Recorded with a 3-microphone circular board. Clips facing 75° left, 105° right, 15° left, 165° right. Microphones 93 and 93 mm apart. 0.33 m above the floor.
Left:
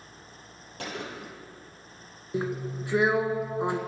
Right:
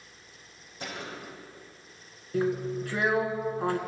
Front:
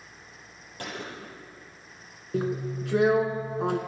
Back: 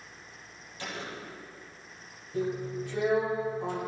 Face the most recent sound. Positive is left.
turn(degrees=5)